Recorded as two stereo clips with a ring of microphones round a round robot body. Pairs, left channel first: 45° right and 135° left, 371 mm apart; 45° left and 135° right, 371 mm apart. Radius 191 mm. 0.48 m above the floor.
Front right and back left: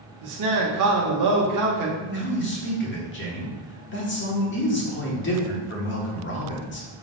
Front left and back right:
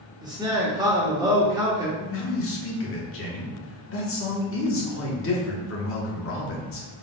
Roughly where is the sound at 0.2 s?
Behind left.